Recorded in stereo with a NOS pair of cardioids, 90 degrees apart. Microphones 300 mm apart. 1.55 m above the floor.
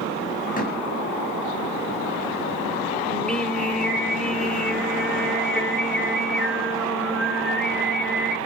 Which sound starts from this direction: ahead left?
A door slam, at 0.6 s.